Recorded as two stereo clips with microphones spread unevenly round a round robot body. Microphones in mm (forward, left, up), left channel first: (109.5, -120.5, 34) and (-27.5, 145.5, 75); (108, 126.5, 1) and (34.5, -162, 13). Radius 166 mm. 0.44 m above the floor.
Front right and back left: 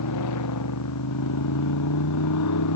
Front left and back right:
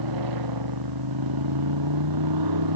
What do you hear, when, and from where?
0.0 s a motorcycle: 100° right